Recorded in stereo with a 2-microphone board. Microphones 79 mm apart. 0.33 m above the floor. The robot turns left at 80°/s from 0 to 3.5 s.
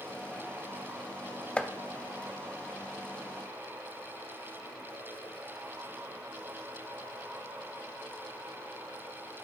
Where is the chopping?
15° left (ahead or behind), 0.7 m; by 1.7 s 5° left (ahead or behind), 0.7 m.